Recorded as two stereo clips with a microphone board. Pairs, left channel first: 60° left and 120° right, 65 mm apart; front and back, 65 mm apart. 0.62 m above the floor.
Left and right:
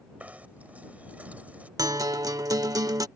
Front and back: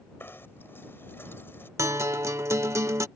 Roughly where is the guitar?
Behind right.